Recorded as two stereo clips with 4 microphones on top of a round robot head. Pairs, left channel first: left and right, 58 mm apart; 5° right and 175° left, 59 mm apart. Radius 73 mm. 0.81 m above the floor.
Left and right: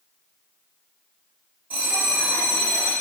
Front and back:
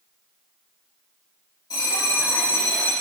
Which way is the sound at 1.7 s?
25° right.